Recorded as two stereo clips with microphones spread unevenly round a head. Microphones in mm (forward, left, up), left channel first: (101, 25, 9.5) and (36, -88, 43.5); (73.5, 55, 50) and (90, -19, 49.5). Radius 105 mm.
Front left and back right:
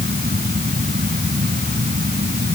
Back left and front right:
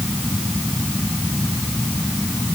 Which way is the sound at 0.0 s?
170° right.